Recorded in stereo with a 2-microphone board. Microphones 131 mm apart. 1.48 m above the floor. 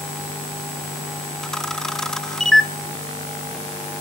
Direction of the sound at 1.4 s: 5° left (ahead or behind).